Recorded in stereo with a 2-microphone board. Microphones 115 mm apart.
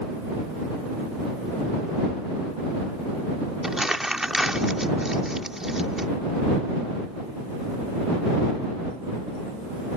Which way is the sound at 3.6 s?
5° right (ahead or behind).